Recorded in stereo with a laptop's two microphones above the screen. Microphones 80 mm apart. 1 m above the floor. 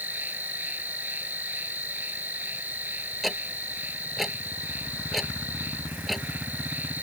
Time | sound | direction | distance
0.0 | an insect | 20° right (ahead or behind) | ?
3.2 | ticking | centre (ahead or behind) | ?